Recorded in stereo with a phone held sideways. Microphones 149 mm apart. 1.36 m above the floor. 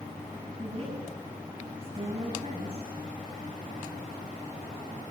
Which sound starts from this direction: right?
A woman speaking, at 0.6 s.